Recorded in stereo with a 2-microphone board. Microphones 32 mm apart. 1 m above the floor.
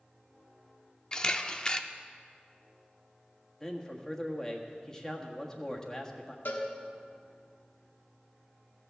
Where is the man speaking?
20° left (ahead or behind), 1.4 m.